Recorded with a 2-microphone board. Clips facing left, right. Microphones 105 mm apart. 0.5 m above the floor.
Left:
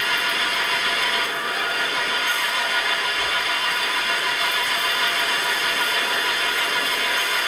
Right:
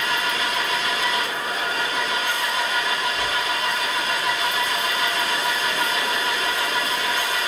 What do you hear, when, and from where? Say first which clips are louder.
0.0 s an engine running: right 1 dB; 30° right (ahead or behind), 5 m